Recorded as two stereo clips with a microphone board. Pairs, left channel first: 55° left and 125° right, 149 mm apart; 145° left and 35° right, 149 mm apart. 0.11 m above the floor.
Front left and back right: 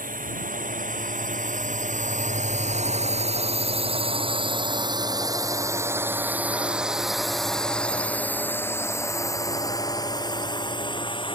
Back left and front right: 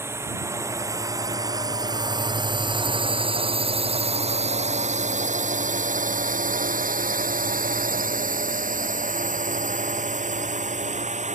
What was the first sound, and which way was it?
A drone, 105° right.